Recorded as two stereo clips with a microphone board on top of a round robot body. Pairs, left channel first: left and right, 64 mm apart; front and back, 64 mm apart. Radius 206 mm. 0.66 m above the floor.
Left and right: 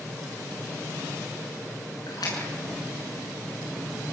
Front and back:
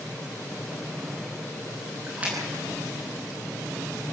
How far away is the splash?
About 7 m.